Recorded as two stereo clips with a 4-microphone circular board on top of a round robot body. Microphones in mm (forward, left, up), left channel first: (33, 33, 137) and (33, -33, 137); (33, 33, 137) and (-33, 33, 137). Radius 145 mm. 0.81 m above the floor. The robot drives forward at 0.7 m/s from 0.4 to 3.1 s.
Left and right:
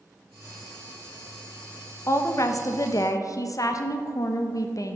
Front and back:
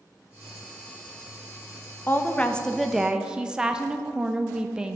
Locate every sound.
2.1 s a woman speaking: 55° left, 1.1 m; by 5.0 s 105° left, 0.9 m